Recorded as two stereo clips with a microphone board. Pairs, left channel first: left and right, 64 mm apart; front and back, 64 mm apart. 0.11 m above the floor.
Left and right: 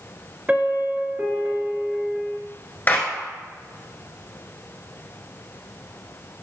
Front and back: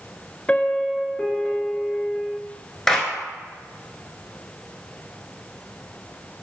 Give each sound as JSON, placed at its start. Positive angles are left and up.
{"t": 0.5, "sound": "a piano", "azimuth_deg": -50, "distance_m": 0.7}
{"t": 2.9, "sound": "a clap", "azimuth_deg": 75, "distance_m": 1.5}